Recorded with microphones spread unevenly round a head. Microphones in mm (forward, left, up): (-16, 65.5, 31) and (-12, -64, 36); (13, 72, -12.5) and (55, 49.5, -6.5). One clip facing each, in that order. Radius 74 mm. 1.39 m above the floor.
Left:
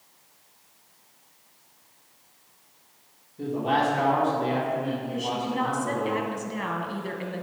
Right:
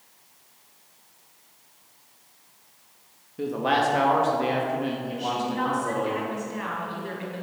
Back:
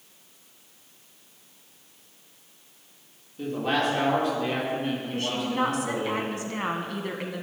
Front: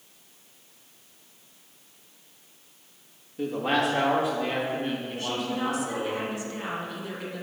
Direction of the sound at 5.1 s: 130° left.